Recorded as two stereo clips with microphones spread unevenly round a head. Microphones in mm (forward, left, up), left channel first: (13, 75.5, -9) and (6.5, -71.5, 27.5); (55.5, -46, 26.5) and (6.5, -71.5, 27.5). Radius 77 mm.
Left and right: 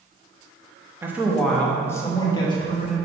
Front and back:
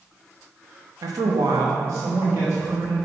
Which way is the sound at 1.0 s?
175° right.